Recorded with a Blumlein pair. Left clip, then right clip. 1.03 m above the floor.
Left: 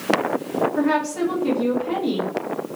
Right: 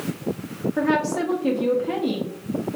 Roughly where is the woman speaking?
Ahead.